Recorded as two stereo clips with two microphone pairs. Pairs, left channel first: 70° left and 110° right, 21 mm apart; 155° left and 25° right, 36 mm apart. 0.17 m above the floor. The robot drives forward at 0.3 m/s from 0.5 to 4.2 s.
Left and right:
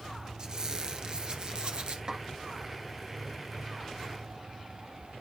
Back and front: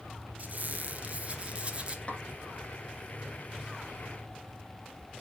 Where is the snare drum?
155° right, 2.5 m.